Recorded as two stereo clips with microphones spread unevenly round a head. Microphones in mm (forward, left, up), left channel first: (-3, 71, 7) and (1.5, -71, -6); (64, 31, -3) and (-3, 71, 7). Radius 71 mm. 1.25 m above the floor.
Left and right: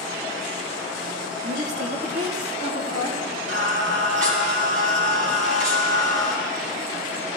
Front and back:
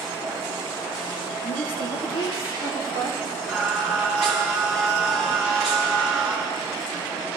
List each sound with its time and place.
1.4 s a woman speaking: 45° right, 1.5 m
3.5 s singing: 125° right, 3 m